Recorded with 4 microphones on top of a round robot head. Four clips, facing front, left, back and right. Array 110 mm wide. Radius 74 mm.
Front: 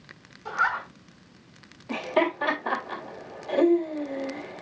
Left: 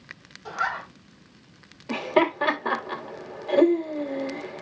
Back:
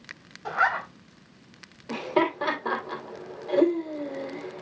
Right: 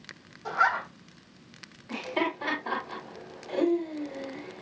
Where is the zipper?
165° right, 3 m.